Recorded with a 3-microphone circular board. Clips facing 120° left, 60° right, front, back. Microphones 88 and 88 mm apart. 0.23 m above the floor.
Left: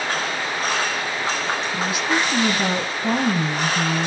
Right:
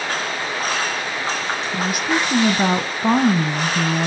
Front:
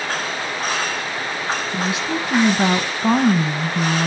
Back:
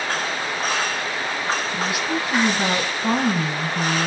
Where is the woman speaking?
55° right, 1.6 m.